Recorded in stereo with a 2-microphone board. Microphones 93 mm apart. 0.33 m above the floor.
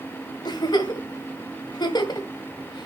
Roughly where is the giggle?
Left.